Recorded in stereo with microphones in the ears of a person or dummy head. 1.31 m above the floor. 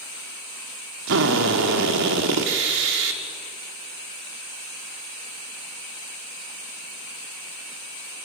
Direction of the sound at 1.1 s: 65° right (ahead or behind).